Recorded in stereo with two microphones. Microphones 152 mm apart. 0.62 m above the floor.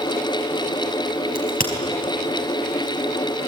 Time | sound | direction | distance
1.4 | a crack | 70° left (ahead or behind) | 4.5 m